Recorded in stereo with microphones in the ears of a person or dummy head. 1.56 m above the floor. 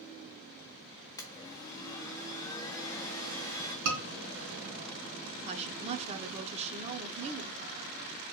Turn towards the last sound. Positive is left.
turn(degrees=-30)  # may be behind; listen again after turning